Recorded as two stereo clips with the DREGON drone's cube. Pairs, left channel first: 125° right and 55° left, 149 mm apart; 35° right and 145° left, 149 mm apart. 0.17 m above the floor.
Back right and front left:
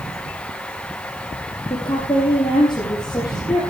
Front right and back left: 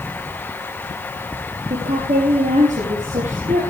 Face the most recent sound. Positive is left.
turn(degrees=175)